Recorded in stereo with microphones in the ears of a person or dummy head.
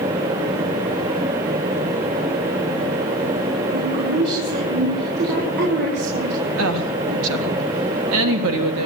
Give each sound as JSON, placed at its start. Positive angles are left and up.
{"t": 3.7, "sound": "a woman speaking", "side_deg": -60, "distance_m": 5.5}
{"t": 6.6, "sound": "a woman speaking", "side_deg": -80, "distance_m": 3.0}